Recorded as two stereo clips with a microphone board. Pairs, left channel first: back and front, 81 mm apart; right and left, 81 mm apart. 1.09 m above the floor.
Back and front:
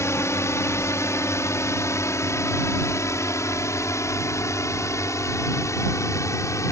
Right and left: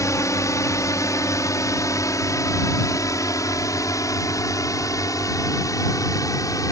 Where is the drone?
130° right.